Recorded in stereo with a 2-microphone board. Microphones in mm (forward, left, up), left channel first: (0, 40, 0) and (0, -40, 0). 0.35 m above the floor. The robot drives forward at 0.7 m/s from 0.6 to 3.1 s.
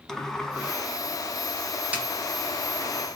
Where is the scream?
I don't hear a scream.